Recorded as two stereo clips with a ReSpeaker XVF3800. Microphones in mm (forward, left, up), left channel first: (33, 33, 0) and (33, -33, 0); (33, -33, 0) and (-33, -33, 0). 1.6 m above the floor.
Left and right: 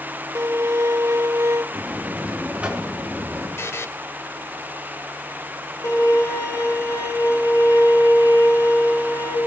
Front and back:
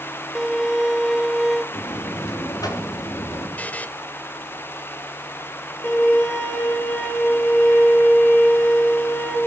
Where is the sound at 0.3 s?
95° right, 0.6 m.